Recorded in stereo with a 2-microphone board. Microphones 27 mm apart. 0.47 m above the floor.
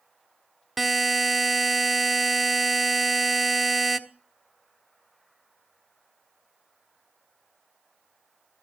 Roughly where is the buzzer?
Centre.